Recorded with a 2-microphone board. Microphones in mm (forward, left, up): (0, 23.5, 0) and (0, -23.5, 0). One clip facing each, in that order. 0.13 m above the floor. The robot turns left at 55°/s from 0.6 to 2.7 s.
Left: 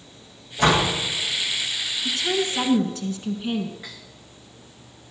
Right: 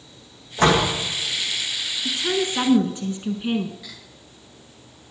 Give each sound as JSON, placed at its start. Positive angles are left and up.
{"t": 0.6, "sound": "a door slam", "side_deg": -50, "distance_m": 5.5}
{"t": 2.0, "sound": "a woman speaking", "side_deg": -15, "distance_m": 1.1}
{"t": 3.8, "sound": "cutlery clinking", "side_deg": 30, "distance_m": 6.0}